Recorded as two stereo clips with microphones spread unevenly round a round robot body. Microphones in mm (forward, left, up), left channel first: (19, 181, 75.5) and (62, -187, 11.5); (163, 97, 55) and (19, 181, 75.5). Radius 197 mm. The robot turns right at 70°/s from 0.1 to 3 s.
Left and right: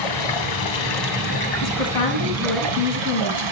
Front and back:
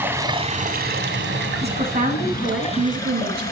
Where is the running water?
70° left, 2.5 m; by 3.5 s 90° right, 2.5 m.